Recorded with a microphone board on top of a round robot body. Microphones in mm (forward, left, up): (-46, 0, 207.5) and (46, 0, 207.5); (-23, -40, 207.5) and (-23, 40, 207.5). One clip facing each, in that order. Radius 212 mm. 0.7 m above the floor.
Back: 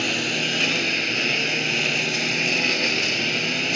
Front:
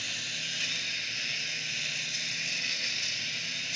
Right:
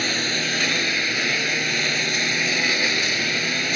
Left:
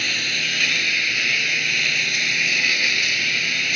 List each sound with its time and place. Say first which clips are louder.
0.0 s a lawn mower: back 17 dB, right 2 dB; 150° right